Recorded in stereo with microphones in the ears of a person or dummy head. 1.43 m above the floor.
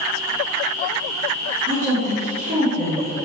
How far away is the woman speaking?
About 1.9 m.